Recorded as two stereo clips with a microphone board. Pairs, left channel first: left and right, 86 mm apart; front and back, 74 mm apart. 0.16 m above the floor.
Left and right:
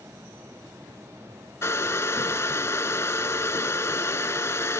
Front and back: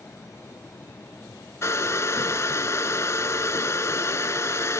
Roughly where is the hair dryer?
Ahead left.